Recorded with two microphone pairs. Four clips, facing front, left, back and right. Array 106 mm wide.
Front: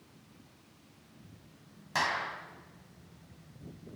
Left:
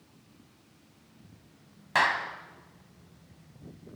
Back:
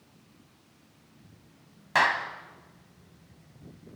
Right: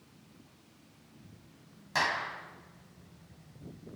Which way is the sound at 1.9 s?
145° left.